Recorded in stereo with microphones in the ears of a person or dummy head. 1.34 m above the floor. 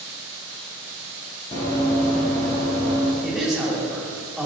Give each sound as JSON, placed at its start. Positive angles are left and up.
{"t": 1.5, "sound": "running footsteps", "side_deg": 25, "distance_m": 1.6}
{"t": 3.2, "sound": "a man speaking", "side_deg": -5, "distance_m": 1.6}